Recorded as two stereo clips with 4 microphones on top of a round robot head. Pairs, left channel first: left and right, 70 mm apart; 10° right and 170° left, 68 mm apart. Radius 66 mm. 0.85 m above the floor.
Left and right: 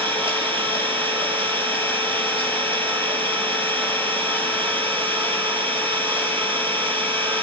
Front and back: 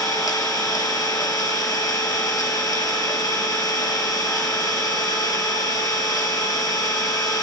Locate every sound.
0.0 s an engine running: 30° left, 4.5 m